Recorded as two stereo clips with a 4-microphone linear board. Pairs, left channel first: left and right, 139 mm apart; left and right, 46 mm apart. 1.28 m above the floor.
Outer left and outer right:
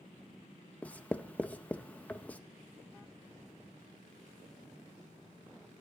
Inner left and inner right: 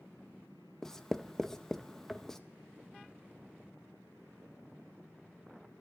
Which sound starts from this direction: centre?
Writing, at 0.8 s.